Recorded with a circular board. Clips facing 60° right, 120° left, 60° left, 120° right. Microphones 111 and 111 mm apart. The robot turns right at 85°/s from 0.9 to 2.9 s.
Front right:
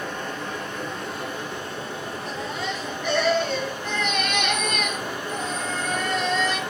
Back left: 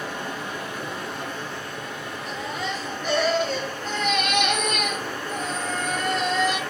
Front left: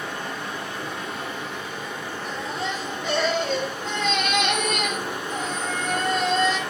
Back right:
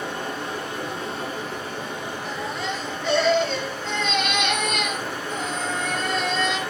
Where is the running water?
165° right, 1.1 m; by 6.7 s 5° left, 1.1 m.